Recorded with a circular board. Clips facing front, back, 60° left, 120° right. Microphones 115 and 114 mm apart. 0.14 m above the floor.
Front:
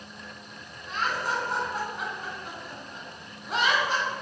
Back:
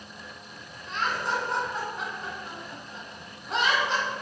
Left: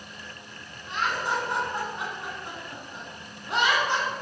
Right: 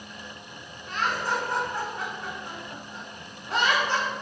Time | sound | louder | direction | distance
0.9 | laughter | even, even | 80° left | 1.6 m